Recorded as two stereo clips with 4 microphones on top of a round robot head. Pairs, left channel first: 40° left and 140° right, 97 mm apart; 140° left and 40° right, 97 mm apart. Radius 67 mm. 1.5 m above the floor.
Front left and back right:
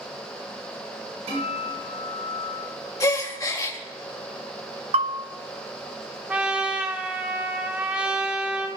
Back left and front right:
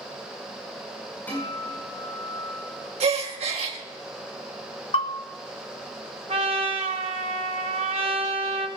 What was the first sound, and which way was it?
A guitar, 145° right.